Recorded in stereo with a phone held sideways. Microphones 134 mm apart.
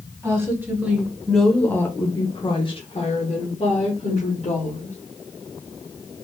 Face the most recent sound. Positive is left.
turn(degrees=55)  # may be behind; listen again after turning